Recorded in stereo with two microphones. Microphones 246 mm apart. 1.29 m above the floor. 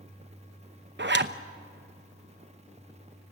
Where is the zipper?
45° right (ahead or behind), 0.8 m.